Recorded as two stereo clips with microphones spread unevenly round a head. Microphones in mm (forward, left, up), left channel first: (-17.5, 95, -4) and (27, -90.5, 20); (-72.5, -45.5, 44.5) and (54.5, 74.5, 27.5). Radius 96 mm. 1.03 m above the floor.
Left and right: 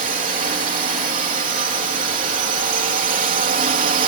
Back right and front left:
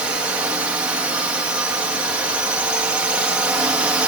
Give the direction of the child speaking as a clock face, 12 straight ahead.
I don't hear a child speaking.